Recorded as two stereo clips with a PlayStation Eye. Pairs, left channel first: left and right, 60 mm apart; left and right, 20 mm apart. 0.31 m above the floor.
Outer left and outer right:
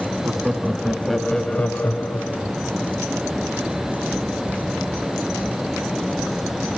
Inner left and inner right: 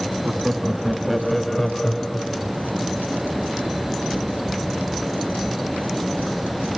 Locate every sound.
0.2 s laughter: 15° right (ahead or behind), 2 m; by 2.6 s 50° left (ahead or behind), 1.5 m